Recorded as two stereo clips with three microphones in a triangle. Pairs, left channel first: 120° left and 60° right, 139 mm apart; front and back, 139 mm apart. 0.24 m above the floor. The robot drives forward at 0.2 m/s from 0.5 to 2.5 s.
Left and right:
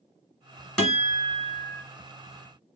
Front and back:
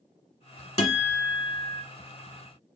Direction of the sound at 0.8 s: 30° left.